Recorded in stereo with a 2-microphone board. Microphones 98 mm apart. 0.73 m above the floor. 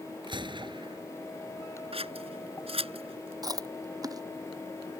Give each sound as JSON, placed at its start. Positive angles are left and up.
{"t": 0.2, "sound": "a gunshot", "side_deg": -55}
{"t": 1.9, "sound": "scissors", "side_deg": -75}
{"t": 3.4, "sound": "chewing", "side_deg": -40}